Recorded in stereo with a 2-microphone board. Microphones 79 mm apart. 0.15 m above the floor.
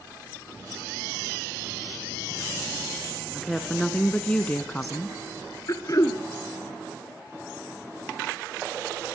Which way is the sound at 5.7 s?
45° left (ahead or behind).